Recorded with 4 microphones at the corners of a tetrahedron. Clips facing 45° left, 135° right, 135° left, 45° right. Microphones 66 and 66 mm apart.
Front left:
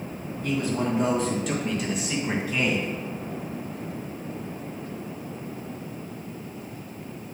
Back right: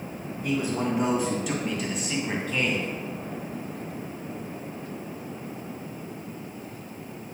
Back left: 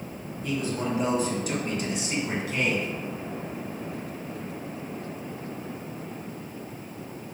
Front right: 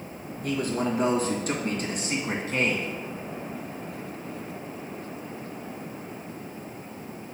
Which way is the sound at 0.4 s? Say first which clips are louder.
Front left 1 dB, front right 2 dB; 60° right.